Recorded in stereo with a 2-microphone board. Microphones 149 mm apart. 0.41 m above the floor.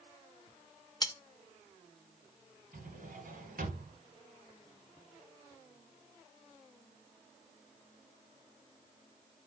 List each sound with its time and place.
1.0 s cutlery clinking: 30° left (ahead or behind), 0.6 m
2.7 s a drawer: 80° right, 1.3 m